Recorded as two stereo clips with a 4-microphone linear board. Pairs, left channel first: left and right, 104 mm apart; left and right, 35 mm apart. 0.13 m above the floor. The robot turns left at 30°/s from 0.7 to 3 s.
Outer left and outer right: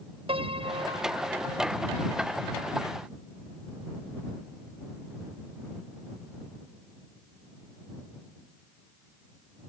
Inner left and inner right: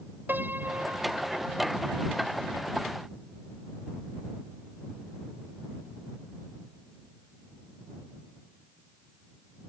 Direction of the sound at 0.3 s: 60° right (ahead or behind).